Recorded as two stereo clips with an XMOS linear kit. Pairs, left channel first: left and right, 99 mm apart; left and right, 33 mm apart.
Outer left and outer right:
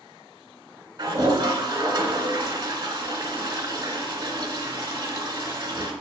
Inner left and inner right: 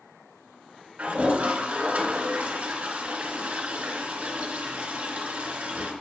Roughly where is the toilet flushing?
Right.